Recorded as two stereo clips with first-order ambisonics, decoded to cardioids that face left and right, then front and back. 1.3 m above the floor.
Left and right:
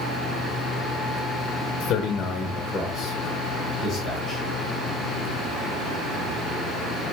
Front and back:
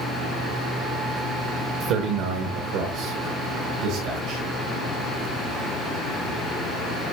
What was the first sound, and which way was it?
A man speaking, 145° left.